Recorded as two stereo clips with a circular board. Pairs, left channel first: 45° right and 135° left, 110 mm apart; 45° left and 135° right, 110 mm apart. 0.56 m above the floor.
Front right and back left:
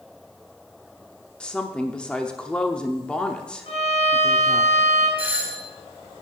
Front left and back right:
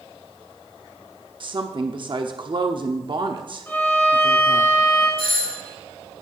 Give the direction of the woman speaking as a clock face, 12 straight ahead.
4 o'clock.